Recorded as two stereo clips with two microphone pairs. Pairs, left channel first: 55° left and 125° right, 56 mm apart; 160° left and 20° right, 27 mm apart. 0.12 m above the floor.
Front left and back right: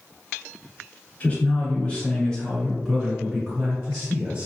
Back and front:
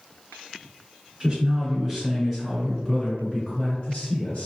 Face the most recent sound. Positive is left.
turn(degrees=165)